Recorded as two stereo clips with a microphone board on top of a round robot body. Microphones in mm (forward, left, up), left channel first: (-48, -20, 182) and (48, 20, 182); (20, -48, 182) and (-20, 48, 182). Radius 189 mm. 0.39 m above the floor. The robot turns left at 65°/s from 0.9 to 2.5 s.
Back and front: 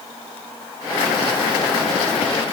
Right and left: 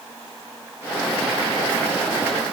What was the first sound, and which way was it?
Only background noise.